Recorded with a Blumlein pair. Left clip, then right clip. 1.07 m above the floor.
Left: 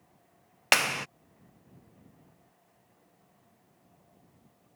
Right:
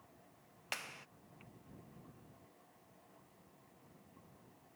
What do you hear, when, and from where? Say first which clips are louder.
0.7 s a clap: left 21 dB; 40° left